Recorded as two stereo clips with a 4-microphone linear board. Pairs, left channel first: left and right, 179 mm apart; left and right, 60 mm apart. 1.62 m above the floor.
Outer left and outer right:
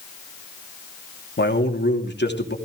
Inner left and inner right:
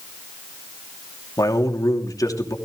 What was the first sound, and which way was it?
A man speaking, 75° left (ahead or behind).